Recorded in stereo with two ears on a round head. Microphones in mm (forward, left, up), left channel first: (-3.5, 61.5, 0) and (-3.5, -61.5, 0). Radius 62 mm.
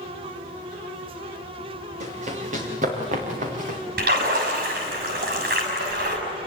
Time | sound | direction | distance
2.0 | running footsteps | 55° right (ahead or behind) | 6.5 m
4.0 | a splash | 80° right | 6.5 m